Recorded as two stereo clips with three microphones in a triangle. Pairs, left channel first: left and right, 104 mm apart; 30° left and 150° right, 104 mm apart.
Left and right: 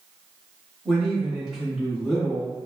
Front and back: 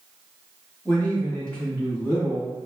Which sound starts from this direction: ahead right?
A man speaking, at 0.8 s.